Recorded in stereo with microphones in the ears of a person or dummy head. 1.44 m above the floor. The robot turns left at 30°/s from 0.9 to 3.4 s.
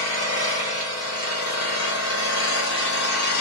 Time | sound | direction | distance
0.0 | an engine running | 135° left | 0.8 m